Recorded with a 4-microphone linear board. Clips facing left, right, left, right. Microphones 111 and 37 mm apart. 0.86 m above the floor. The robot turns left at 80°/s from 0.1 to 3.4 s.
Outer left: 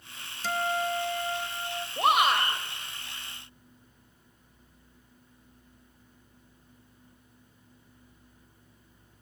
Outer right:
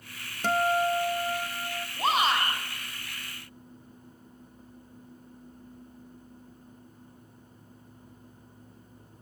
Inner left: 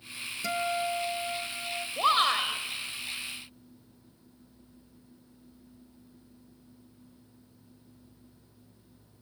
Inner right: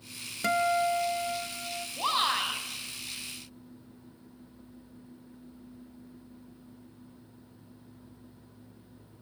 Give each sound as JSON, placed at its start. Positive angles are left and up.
{"t": 0.4, "sound": "a guitar", "azimuth_deg": -95, "distance_m": 0.9}
{"t": 2.0, "sound": "a shout", "azimuth_deg": 80, "distance_m": 4.0}